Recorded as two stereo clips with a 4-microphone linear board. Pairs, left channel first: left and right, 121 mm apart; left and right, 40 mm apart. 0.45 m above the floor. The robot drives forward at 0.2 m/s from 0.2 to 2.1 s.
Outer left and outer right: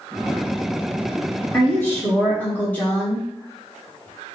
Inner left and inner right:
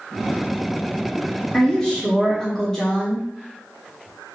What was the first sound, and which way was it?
A woman speaking, 15° left (ahead or behind).